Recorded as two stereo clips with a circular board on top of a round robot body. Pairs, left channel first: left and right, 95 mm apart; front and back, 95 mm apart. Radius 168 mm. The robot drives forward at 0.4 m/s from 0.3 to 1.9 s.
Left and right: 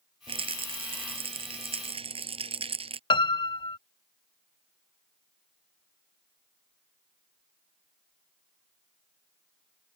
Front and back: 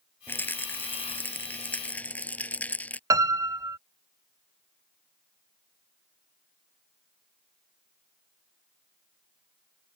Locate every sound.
0.3 s a rattle: 70° right; by 3.0 s 75° right
3.1 s a piano: 125° left